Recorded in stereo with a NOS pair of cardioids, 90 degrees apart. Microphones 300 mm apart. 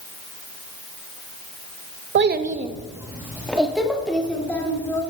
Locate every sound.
2.1 s a child speaking: 40° right, 0.9 m; by 5.0 s 5° left, 3.5 m